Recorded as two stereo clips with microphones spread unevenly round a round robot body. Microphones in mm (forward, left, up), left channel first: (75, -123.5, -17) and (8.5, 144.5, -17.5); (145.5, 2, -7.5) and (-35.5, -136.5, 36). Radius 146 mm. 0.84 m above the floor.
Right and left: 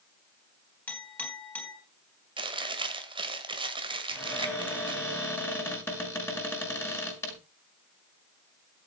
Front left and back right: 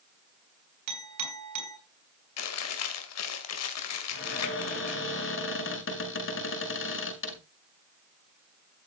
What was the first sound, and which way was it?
A clink, 160° right.